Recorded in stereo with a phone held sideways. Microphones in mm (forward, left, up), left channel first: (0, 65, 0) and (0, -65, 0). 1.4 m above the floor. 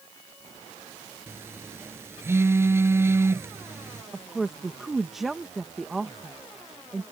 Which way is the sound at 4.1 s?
Centre (ahead or behind).